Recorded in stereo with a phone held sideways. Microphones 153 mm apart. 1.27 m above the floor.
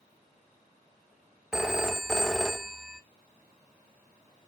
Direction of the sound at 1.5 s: 5° right (ahead or behind).